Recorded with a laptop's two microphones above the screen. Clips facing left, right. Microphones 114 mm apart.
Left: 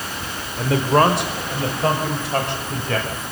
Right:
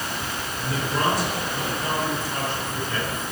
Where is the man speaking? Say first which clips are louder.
Left 10 dB; 70° left (ahead or behind), 4 m.